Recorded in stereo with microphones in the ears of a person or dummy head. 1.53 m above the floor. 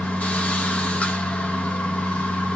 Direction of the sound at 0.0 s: 10° left (ahead or behind).